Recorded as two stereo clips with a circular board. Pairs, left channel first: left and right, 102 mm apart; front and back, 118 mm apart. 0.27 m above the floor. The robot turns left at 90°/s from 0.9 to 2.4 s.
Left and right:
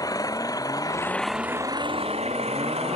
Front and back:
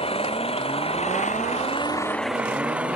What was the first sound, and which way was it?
An engine running, 35° left.